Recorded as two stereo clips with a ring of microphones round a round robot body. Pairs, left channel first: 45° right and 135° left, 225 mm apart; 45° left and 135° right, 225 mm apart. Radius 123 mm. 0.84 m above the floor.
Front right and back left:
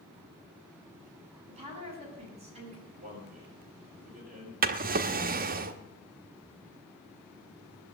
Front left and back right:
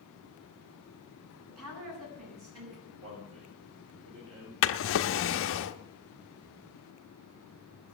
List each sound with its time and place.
1.5 s a woman speaking: 160° right, 6.5 m
2.9 s a man speaking: 170° right, 5 m
4.6 s a drawer: 80° left, 0.8 m